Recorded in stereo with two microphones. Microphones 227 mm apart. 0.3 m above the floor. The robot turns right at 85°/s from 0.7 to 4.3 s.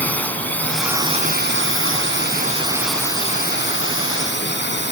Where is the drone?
175° left; by 4.9 s 120° left.